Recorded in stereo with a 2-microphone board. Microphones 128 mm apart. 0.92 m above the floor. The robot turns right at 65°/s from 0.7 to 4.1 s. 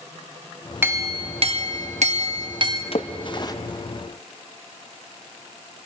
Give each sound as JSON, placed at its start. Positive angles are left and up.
{"t": 0.8, "sound": "a clink", "azimuth_deg": -160, "distance_m": 0.8}
{"t": 2.9, "sound": "a splash", "side_deg": 50, "distance_m": 0.5}